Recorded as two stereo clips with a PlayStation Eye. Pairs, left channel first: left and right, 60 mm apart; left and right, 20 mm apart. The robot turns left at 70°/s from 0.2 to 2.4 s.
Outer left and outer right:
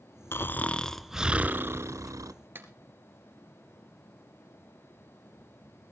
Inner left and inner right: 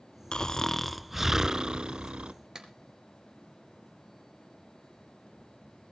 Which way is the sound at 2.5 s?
35° right (ahead or behind).